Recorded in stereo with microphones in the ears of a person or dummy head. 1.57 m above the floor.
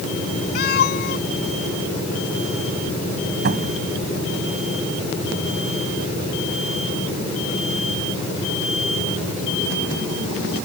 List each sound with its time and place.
0.6 s a cat meowing: 60° left (ahead or behind)
3.5 s a cupboard door: 55° right (ahead or behind)